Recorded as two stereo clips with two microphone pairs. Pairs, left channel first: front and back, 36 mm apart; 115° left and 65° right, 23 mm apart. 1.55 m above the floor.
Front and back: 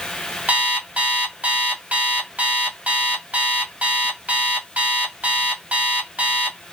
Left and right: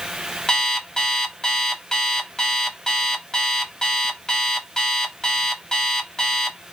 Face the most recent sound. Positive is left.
turn(degrees=165)